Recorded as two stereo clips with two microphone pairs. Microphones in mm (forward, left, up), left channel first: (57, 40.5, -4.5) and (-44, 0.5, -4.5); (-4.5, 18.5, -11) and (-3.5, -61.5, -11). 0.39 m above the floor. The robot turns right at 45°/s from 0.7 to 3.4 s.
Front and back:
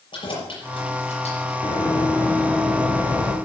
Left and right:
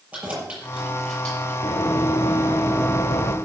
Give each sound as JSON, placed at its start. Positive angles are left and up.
{"t": 0.1, "sound": "keys jangling", "azimuth_deg": -15, "distance_m": 6.0}
{"t": 1.6, "sound": "running footsteps", "azimuth_deg": 70, "distance_m": 3.5}